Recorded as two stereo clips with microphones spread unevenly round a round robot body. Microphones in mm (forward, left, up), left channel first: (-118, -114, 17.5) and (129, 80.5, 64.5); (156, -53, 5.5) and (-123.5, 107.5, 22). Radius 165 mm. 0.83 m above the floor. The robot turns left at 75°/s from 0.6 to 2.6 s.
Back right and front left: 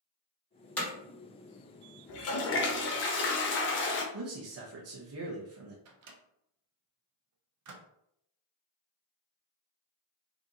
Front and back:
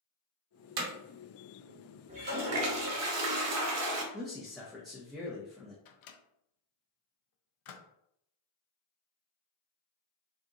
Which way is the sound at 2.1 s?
140° right.